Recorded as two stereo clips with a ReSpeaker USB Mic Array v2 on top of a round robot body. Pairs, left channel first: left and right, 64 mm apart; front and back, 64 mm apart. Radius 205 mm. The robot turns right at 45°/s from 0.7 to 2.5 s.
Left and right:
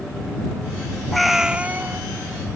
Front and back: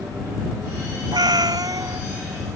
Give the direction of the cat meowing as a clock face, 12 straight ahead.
6 o'clock.